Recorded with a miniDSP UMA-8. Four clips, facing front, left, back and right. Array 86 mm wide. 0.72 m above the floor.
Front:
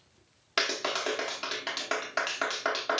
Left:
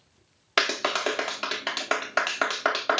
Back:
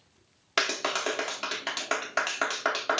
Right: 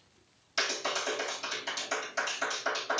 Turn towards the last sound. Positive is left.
turn(degrees=105)